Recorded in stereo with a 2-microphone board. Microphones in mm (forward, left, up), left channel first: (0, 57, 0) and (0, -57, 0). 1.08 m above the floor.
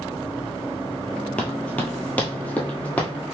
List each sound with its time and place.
1.4 s running footsteps: 10° left (ahead or behind), 1.1 m; by 3.1 s 15° left (ahead or behind), 1.7 m